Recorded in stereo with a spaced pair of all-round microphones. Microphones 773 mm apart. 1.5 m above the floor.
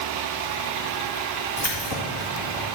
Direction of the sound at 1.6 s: 30° left (ahead or behind).